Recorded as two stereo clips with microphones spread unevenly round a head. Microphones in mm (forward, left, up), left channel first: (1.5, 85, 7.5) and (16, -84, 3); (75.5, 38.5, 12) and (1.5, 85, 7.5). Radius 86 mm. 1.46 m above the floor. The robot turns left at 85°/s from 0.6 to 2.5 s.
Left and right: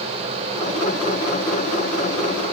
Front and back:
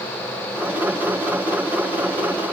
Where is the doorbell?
No doorbell in this recording.